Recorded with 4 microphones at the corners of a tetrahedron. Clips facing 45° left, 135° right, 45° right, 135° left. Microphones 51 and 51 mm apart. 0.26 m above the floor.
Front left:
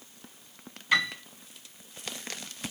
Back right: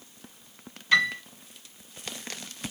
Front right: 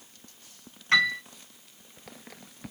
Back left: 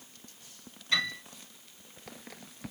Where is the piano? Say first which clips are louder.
Back right 3 dB, front right 8 dB; 35° right, 3 m.